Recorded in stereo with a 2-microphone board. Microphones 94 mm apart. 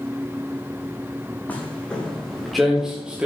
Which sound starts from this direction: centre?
Footsteps, at 1.5 s.